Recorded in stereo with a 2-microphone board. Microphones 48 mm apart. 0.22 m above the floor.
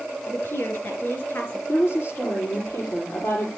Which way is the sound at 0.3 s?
50° left (ahead or behind).